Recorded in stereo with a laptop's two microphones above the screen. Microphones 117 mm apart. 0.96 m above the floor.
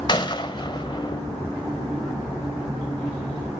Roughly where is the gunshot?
Left.